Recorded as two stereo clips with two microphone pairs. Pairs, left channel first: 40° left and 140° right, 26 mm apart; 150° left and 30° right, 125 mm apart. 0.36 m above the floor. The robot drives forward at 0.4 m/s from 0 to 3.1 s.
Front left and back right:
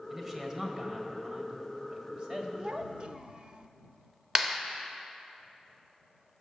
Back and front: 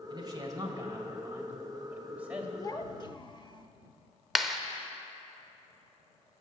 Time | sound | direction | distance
0.1 | a man speaking | 70° right | 1.9 m
2.6 | a child speaking | 165° right | 0.6 m
4.3 | a clap | 120° right | 0.9 m